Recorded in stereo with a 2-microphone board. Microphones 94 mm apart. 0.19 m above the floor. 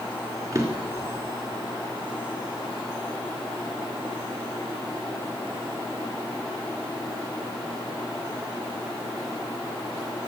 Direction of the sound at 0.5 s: 35° right (ahead or behind).